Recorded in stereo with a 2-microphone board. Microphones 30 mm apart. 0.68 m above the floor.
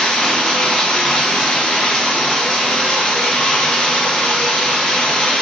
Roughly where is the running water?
Left.